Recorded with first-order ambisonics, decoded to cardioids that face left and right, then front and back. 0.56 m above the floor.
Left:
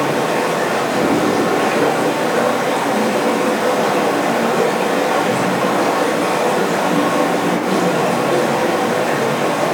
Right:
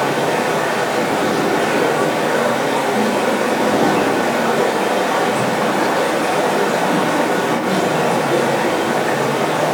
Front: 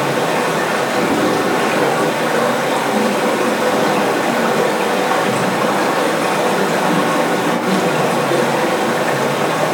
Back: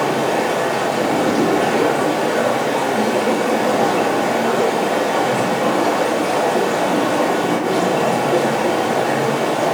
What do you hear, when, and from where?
0.0 s running water: 15° left, 4 m